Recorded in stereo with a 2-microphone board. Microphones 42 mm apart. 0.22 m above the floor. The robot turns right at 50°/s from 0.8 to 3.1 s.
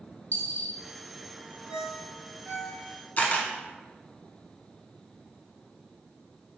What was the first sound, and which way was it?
A dropped coin, 50° left (ahead or behind).